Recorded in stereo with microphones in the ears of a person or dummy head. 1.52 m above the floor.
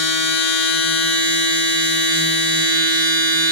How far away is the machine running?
About 1.6 m.